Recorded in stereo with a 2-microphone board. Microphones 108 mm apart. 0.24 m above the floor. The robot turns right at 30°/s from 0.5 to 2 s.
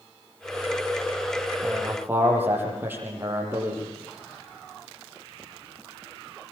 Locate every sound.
1.6 s a man speaking: 5° right (ahead or behind), 9 m; by 3.8 s 15° right (ahead or behind), 9 m